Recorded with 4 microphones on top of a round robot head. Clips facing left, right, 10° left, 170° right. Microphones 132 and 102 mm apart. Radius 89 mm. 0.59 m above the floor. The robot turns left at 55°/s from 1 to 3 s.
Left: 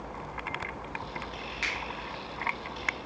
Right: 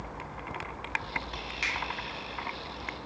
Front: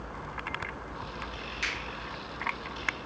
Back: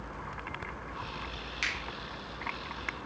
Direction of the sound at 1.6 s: 160° right.